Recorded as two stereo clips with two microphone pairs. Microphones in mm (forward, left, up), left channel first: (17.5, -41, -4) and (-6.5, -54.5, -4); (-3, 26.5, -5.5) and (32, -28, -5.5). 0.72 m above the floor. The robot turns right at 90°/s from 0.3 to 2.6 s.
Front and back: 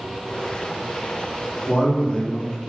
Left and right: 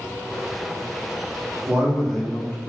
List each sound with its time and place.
1.7 s a man speaking: 10° right, 1.3 m; by 2.7 s 75° left, 1.3 m